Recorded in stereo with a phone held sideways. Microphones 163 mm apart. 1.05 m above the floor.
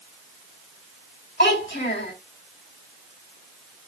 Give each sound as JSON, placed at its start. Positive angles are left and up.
{"t": 1.4, "sound": "a child speaking", "side_deg": 75, "distance_m": 4.5}